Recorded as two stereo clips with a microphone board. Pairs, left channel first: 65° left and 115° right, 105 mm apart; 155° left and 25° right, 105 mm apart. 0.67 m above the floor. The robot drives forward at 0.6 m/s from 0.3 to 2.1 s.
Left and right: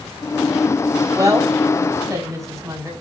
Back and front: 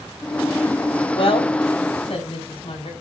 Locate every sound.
1.1 s a woman speaking: 170° right, 3.5 m; by 2.9 s 175° right, 4 m